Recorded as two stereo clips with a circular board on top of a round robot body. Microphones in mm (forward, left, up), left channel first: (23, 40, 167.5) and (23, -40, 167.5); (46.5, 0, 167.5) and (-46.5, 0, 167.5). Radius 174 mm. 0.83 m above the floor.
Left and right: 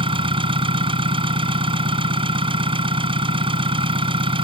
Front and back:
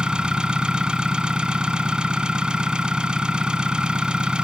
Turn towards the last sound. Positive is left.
turn(degrees=-100)